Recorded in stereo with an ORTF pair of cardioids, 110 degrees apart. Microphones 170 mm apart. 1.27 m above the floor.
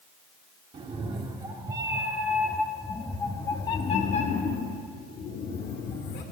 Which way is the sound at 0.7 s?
35° right.